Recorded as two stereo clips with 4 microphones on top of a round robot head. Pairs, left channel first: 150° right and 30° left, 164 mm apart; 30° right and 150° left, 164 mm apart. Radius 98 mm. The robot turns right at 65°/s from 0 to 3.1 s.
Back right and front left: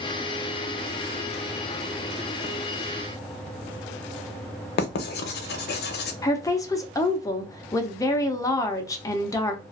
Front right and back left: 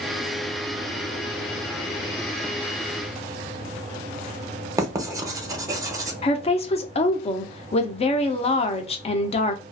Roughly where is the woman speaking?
Right.